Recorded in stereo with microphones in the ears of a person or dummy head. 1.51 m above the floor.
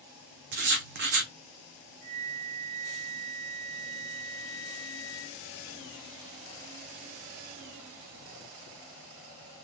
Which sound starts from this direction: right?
Writing, at 0.5 s.